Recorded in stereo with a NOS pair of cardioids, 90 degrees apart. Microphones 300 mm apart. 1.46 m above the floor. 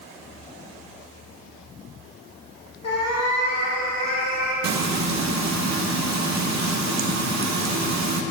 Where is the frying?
65° right, 1.0 m.